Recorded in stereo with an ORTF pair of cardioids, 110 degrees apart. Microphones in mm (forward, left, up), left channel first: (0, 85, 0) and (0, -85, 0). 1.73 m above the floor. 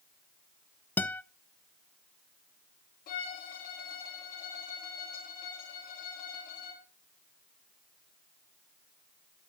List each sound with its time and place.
1.0 s a guitar: 10° left, 0.6 m
3.1 s a violin: 65° left, 2.5 m